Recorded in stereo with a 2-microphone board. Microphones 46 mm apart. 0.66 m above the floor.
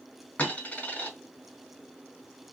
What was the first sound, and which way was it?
A dropped coin, 35° left (ahead or behind).